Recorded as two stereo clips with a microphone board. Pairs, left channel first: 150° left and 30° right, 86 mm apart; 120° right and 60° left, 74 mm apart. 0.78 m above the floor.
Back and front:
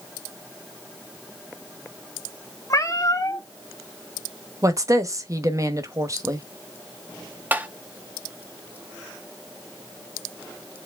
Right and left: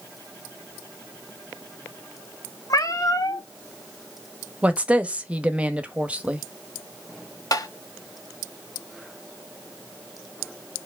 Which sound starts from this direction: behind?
A cat meowing, at 2.7 s.